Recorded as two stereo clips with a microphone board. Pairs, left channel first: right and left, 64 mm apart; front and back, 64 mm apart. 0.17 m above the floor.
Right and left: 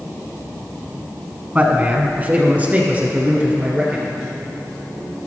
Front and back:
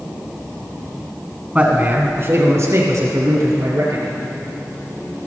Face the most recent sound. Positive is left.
turn(degrees=160)